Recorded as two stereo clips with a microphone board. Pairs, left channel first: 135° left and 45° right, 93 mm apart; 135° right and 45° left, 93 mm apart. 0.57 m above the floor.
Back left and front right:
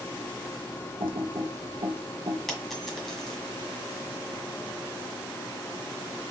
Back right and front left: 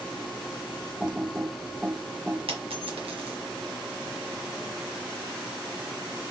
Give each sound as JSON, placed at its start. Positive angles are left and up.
{"t": 1.0, "sound": "typing on a keyboard", "azimuth_deg": -35, "distance_m": 0.6}
{"t": 2.5, "sound": "a dropped coin", "azimuth_deg": 45, "distance_m": 1.6}